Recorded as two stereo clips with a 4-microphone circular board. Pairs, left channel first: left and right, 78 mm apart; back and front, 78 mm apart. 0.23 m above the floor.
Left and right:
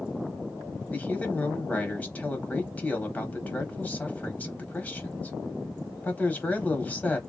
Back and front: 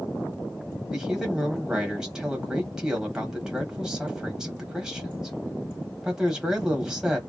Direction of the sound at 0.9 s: 65° left.